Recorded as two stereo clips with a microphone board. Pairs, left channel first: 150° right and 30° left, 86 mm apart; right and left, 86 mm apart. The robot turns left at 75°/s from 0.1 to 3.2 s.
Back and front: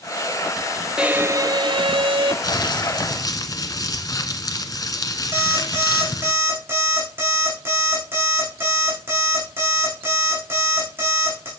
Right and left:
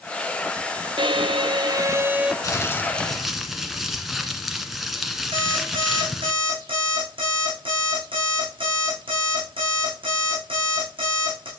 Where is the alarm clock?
95° left, 6 m.